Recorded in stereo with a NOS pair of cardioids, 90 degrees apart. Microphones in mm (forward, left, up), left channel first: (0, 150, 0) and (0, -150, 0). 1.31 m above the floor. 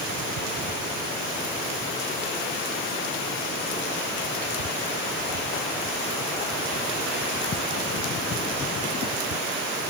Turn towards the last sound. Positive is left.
No sound to turn to.